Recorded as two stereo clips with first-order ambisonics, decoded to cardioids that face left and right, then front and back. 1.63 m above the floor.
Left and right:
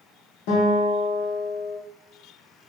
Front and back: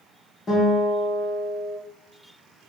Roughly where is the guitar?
Left.